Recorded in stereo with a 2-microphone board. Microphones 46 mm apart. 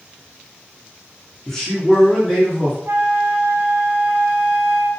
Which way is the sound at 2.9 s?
70° right (ahead or behind).